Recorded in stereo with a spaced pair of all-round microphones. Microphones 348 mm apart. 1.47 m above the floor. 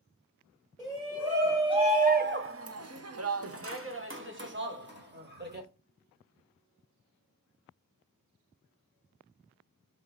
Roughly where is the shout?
Centre.